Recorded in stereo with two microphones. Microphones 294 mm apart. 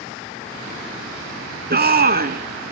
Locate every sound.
1.7 s a shout: 35° right (ahead or behind), 1.3 m